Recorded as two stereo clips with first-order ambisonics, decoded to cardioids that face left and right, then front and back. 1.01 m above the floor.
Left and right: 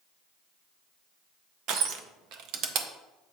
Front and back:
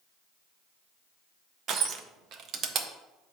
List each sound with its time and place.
1.7 s crushing: 130° right, 0.6 m